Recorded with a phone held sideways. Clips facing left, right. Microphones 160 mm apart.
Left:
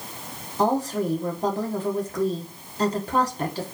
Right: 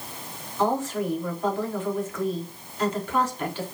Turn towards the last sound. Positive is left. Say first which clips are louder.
# left 2 dB
turn(degrees=35)  # may be behind; listen again after turning